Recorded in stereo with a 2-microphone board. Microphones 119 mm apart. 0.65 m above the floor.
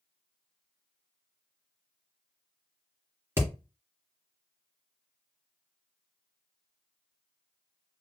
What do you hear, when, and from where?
3.4 s hammering: 20° right (ahead or behind), 2 m